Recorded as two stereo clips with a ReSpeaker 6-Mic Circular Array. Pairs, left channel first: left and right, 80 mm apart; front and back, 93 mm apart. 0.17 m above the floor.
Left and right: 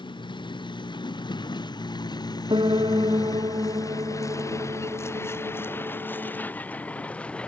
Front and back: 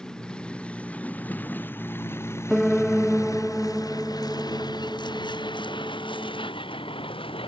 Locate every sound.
0.0 s a vehicle: 80° left; by 7.5 s 15° left
2.5 s a piano: 90° right